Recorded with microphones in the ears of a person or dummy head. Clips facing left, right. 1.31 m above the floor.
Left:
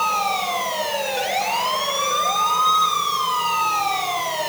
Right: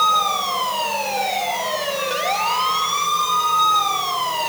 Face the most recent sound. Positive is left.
No sound to turn to.